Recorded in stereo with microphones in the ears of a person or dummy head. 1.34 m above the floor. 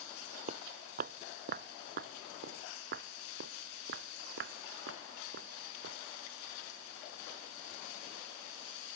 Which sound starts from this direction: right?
Footsteps, at 0.5 s.